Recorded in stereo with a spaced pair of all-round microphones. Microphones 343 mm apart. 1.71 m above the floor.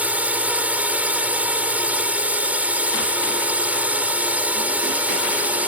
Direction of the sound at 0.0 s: 5° right (ahead or behind).